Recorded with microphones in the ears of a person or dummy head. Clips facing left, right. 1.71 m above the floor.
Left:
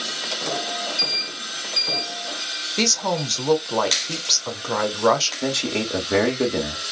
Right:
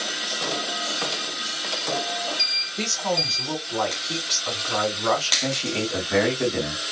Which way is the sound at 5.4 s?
40° left (ahead or behind).